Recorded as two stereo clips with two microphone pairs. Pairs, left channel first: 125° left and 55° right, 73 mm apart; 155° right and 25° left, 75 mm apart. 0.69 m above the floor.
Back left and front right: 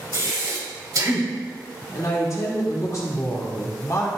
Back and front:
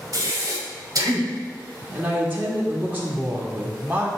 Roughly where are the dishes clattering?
I don't hear dishes clattering.